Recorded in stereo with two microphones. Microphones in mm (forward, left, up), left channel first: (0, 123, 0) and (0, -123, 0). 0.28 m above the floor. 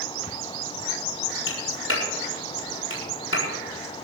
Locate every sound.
1.5 s a clap: 60° left (ahead or behind), 7.5 m